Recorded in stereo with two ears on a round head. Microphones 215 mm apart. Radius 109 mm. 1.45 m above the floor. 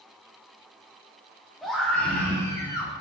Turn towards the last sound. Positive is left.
turn(degrees=20)  # may be behind; listen again after turning